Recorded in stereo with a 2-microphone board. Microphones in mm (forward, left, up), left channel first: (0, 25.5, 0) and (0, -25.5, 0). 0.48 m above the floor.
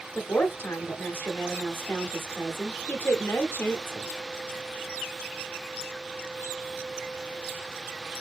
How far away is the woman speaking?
About 0.9 m.